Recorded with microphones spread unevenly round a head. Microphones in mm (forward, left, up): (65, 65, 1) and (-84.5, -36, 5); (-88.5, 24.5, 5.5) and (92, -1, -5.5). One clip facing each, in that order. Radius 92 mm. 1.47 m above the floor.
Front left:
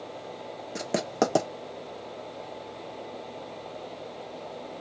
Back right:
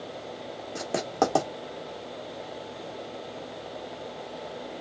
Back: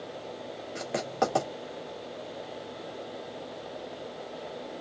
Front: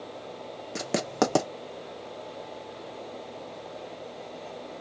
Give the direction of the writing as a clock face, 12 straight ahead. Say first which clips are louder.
Even, front 3 dB; 1 o'clock.